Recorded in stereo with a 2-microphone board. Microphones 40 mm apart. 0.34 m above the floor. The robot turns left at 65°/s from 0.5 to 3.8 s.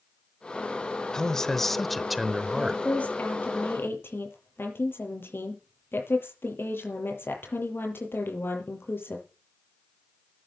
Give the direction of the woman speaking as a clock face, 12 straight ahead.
6 o'clock.